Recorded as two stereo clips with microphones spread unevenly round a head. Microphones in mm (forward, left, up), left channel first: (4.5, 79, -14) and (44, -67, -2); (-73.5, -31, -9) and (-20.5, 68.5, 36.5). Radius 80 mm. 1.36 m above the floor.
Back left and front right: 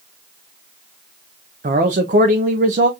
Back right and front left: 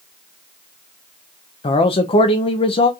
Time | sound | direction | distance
1.6 | a man speaking | 120° right | 0.5 m